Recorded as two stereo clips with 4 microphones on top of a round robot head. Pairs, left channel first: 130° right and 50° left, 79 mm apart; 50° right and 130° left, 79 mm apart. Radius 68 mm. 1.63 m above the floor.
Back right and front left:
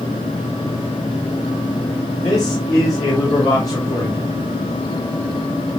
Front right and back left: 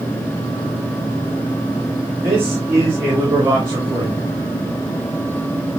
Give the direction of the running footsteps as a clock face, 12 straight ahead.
No running footsteps in this recording.